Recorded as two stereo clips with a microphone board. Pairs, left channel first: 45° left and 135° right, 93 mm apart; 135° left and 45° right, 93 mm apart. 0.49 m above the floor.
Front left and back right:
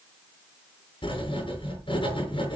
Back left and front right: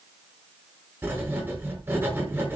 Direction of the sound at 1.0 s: 20° left.